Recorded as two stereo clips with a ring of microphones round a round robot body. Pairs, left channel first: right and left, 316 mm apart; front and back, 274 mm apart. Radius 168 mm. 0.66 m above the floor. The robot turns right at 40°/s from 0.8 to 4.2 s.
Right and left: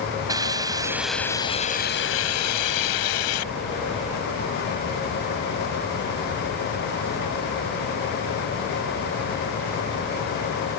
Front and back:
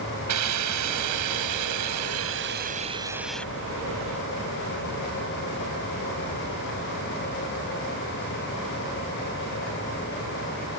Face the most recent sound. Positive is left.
turn(degrees=-55)